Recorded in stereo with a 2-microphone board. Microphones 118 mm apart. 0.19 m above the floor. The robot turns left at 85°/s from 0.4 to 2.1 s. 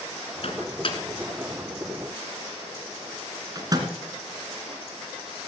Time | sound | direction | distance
0.4 | a microwave | 55° left (ahead or behind) | 2 m